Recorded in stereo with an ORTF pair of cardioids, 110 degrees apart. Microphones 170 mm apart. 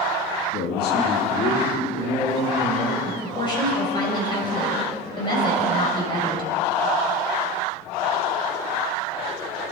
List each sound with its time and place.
0.5 s a man speaking: 65° left, 2.5 m
3.0 s a woman speaking: 30° left, 6.5 m